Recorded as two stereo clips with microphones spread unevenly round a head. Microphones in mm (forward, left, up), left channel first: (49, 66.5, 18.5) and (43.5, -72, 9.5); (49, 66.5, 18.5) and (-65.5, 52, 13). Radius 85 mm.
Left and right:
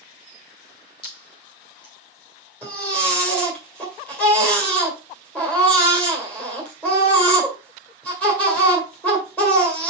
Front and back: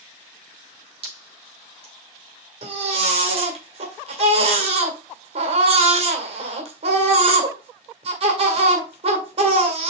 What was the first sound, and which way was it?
Dripping, 150° left.